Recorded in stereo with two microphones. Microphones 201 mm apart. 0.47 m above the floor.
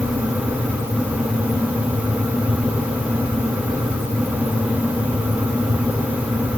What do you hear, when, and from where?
Only background noise.